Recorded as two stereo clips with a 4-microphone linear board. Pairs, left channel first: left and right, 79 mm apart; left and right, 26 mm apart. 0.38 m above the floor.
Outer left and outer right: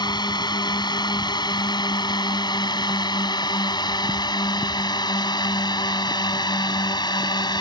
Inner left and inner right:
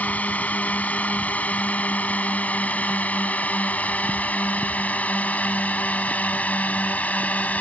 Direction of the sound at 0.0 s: 60° left (ahead or behind).